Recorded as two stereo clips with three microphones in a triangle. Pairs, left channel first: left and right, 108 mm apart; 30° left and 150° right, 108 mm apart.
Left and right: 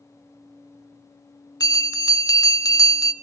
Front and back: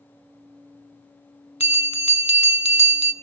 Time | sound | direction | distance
1.6 | a bell | 35° left | 0.6 m